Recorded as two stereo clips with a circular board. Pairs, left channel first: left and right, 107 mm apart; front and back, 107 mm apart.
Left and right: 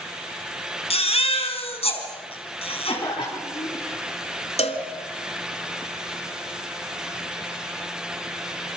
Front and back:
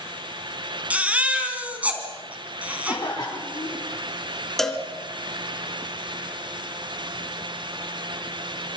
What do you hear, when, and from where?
0.9 s a baby crying: 105° left, 3.5 m
2.9 s a cough: 50° left, 3.5 m
4.6 s a cowbell: 85° left, 1.8 m